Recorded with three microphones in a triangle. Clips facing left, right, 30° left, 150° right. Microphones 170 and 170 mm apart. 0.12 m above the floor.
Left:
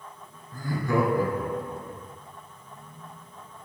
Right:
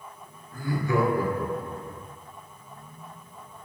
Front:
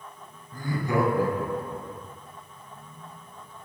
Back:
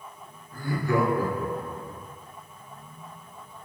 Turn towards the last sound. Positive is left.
turn(degrees=110)